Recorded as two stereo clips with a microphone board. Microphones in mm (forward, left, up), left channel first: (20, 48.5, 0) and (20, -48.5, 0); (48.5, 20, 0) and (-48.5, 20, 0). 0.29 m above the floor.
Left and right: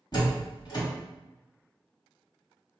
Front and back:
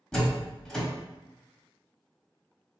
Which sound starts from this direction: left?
A door slam, at 0.1 s.